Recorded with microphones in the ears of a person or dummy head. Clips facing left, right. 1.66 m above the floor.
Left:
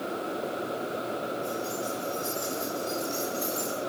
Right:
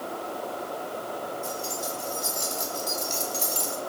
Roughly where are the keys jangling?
Right.